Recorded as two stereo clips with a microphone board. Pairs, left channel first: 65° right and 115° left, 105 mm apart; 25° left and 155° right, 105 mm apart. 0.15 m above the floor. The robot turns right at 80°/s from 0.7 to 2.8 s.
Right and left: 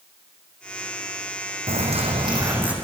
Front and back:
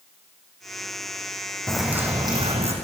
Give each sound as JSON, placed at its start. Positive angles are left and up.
{"t": 1.7, "sound": "a bird", "azimuth_deg": 105, "distance_m": 4.0}